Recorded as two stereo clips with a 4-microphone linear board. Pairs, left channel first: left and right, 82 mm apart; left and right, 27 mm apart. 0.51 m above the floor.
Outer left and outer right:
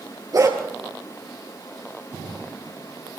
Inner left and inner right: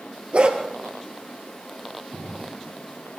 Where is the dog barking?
50° right (ahead or behind), 3.5 m.